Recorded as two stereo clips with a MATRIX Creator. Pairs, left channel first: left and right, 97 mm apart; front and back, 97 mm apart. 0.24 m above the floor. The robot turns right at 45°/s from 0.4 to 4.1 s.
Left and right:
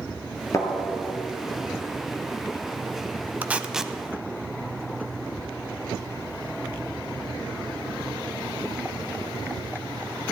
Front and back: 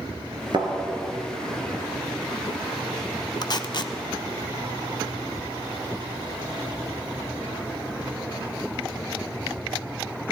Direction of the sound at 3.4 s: 25° right.